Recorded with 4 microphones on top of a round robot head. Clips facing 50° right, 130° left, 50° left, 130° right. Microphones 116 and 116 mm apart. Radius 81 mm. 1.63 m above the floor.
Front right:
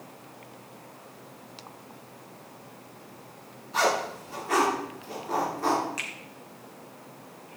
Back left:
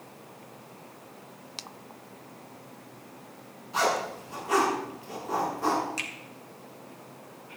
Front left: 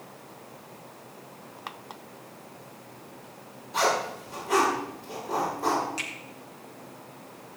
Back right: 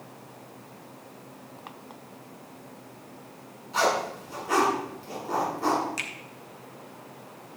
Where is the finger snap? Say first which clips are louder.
Back left 1 dB, even; 170° right, 1.8 m.